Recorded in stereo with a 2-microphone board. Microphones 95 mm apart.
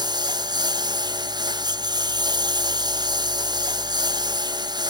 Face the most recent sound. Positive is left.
turn(degrees=-50)  # may be behind; listen again after turning